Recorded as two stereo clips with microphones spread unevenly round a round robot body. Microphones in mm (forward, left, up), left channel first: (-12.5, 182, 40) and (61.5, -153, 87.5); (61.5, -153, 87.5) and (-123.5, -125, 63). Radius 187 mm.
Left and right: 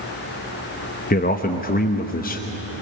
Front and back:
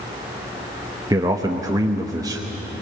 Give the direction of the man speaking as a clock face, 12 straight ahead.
8 o'clock.